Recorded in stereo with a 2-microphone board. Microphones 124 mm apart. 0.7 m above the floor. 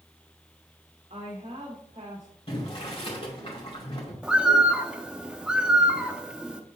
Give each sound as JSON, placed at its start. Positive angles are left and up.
{"t": 1.1, "sound": "a woman speaking", "side_deg": -70, "distance_m": 1.9}
{"t": 2.5, "sound": "boiling", "side_deg": 50, "distance_m": 2.5}
{"t": 4.2, "sound": "a bird", "side_deg": -5, "distance_m": 0.7}